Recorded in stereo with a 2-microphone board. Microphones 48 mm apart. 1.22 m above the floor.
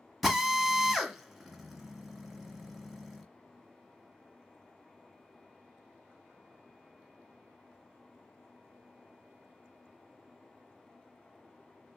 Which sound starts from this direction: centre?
A drill, at 0.2 s.